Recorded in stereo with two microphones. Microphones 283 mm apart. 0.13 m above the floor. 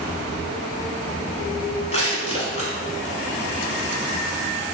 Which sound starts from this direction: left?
Crushing, at 1.9 s.